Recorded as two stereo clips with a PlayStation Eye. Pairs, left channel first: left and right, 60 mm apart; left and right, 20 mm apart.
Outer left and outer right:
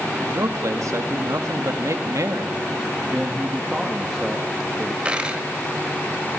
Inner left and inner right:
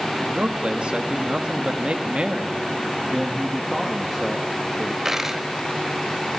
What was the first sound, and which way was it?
A man speaking, 60° right (ahead or behind).